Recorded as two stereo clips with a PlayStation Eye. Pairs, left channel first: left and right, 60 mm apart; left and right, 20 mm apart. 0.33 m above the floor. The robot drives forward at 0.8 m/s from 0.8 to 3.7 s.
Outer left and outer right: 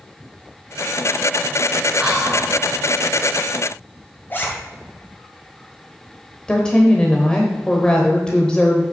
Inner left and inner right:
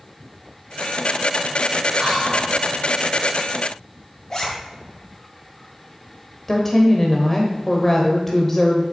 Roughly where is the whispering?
Centre.